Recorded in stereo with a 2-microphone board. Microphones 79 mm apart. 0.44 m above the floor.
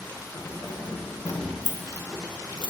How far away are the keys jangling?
About 1.7 m.